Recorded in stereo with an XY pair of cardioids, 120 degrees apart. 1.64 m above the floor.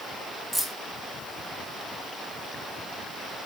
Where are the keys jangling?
5° left, 3 m.